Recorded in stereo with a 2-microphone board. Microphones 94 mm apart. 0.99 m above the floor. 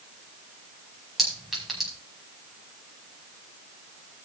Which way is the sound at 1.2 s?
Centre (ahead or behind).